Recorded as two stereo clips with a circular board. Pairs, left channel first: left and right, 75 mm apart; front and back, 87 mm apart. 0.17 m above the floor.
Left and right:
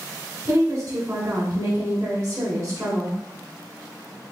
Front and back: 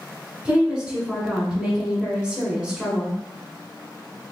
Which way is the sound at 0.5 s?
110° right.